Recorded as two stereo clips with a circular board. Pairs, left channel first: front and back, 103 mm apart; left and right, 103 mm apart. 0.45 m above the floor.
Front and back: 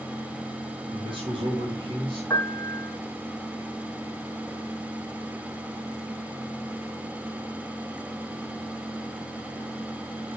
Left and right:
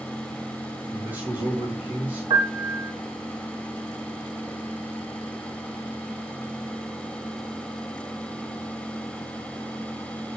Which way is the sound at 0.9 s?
160° right.